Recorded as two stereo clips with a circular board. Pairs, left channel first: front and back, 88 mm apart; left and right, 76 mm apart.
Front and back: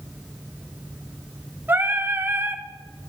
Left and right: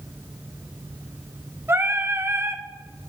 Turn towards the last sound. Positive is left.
turn(degrees=-125)